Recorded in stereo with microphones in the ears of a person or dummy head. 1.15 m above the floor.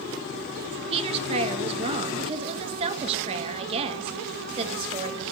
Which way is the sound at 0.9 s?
30° right (ahead or behind).